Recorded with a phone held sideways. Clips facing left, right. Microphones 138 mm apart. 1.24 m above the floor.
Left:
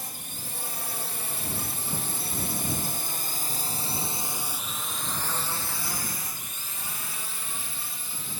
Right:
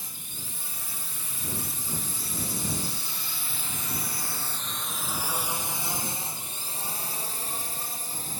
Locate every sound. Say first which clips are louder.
0.0 s a drone: left 4 dB; 65° left (ahead or behind); by 8.4 s 40° right (ahead or behind)